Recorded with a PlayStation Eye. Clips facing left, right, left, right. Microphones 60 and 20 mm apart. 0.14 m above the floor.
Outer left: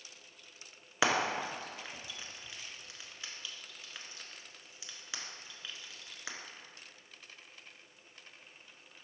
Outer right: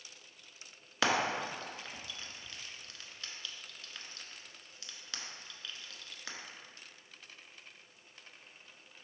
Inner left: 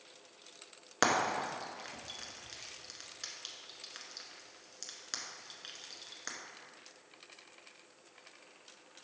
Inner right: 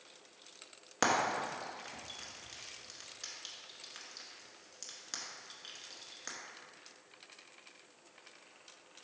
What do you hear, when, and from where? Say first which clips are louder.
1.0 s frying: outer left 1 dB, inner left 1 dB; 15° left (ahead or behind), 1.0 m